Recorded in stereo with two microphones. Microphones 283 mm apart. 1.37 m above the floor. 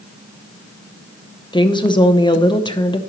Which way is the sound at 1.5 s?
15° left (ahead or behind).